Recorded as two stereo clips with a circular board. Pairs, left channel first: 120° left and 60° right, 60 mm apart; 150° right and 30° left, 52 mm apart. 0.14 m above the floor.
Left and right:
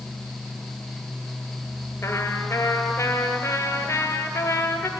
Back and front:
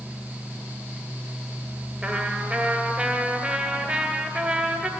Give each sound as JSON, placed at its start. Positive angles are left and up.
{"t": 2.0, "sound": "a trumpet", "azimuth_deg": 85, "distance_m": 2.0}